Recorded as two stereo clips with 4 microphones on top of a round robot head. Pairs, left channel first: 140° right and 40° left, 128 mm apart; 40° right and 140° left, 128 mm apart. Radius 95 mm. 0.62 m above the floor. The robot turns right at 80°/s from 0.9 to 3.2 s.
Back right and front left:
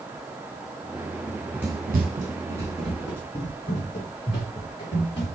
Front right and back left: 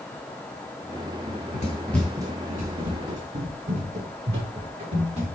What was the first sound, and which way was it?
Running footsteps, 110° right.